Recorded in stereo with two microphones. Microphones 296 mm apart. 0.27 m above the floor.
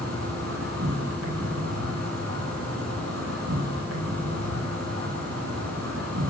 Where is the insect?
60° right (ahead or behind), 2 m.